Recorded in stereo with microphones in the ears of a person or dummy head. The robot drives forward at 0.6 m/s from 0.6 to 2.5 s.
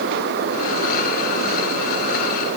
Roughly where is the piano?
I don't hear a piano.